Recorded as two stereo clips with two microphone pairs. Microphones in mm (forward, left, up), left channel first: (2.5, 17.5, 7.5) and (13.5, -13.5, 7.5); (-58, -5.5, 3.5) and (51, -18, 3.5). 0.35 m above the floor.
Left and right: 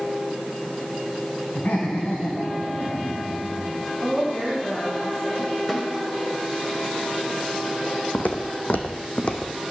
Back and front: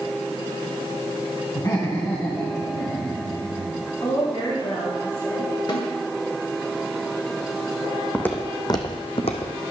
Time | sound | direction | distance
1.6 | laughter | 125° left | 3 m
4.0 | a woman speaking | 150° left | 3.5 m
5.7 | a snare drum | 170° right | 2.0 m
8.1 | footsteps | 100° left | 1.4 m